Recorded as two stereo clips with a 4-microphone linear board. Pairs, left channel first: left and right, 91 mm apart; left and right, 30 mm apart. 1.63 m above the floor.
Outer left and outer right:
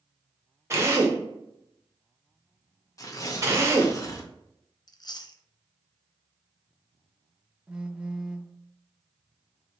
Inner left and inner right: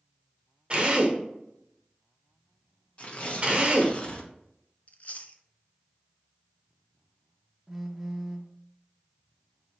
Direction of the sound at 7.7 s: 10° right (ahead or behind).